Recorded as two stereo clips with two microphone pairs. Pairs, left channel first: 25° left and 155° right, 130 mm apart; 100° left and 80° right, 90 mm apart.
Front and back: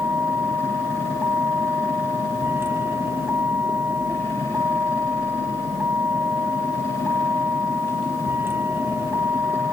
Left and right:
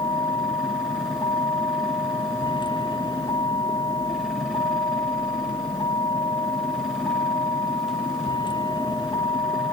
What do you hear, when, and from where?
0.0 s a vehicle: 130° left